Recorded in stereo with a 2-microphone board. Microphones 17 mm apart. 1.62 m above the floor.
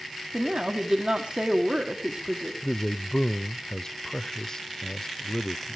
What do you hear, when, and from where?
0.3 s a woman speaking: 75° right (ahead or behind), 1.7 m
2.6 s a man speaking: 35° left (ahead or behind), 0.5 m